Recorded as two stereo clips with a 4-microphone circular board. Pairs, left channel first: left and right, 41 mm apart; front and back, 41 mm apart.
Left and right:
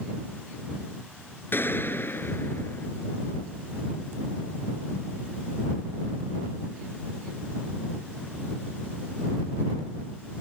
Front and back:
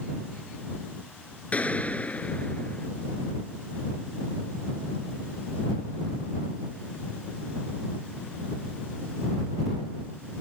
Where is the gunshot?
55° left.